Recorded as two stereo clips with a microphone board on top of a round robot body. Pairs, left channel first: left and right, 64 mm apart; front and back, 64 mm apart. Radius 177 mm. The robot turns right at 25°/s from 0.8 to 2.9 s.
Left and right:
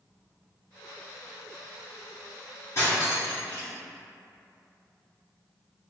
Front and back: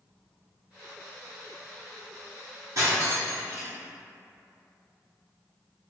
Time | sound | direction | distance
2.8 | cutlery clinking | 140° left | 0.6 m